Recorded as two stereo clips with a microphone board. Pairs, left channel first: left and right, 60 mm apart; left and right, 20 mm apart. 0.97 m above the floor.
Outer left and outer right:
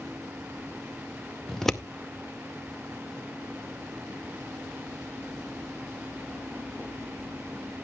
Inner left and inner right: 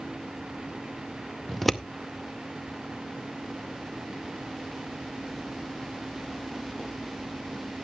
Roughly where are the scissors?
Centre.